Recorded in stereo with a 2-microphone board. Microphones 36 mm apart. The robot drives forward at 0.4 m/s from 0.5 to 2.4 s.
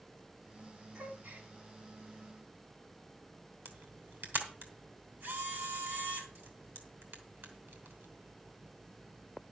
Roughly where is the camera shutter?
Right.